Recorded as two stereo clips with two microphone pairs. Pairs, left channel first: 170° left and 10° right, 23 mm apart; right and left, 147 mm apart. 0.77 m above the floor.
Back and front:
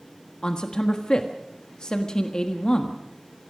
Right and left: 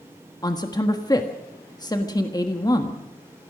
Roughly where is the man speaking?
Behind right.